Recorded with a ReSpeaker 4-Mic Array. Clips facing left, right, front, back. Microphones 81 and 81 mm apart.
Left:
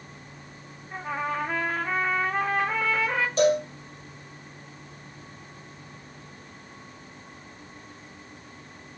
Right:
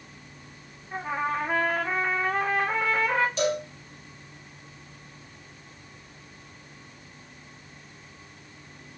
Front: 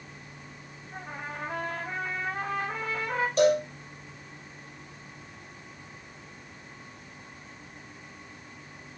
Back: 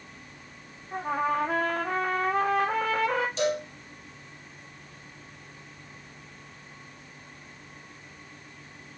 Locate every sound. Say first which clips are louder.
0.9 s a trumpet: right 1 dB, back 12 dB; 175° right, 1.3 m
3.4 s a cowbell: left 5 dB, front 11 dB; 40° left, 2.5 m